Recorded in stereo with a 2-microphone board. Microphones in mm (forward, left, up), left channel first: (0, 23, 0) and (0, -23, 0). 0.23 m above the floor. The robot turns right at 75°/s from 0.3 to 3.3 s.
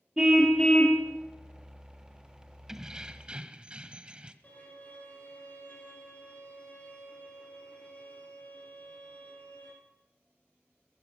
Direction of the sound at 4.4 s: 35° left (ahead or behind).